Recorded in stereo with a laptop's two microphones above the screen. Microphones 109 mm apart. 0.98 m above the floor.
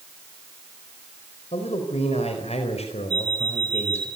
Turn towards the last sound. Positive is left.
turn(degrees=-40)  # may be behind; listen again after turning